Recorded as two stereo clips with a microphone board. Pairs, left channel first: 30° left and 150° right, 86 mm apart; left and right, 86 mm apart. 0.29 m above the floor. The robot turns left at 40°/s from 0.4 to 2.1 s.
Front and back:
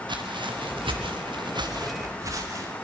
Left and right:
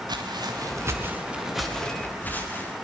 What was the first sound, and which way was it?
Footsteps, 125° right.